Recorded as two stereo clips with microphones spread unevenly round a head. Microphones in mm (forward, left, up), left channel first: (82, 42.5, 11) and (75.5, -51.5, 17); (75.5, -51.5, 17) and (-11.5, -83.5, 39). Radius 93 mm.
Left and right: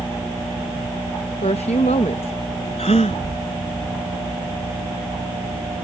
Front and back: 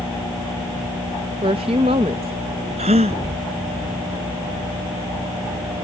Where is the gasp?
145° left.